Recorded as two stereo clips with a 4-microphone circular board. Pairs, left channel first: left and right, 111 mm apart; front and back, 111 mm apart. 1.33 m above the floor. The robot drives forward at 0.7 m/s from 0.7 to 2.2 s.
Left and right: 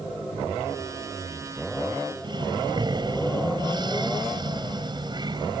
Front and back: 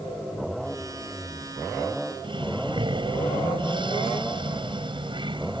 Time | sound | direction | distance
2.2 | breathing | 140° right | ?